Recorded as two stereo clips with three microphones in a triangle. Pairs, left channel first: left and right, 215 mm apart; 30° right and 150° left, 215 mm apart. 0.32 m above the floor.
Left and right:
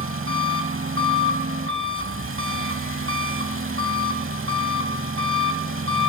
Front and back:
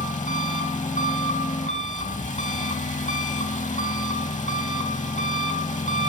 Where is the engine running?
85° right, 0.7 m.